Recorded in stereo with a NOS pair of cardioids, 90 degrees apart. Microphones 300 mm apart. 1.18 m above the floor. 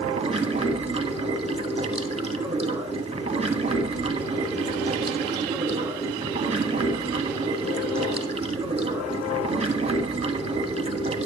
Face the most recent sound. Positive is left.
turn(degrees=-20)